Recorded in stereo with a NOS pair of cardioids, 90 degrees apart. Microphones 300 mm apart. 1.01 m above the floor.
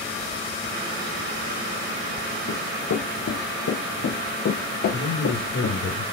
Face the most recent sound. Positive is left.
turn(degrees=65)